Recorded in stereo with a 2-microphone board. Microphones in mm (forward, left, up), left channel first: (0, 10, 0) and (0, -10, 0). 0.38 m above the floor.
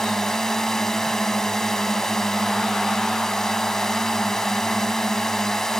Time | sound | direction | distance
0.0 | a drone | 25° left (ahead or behind) | ?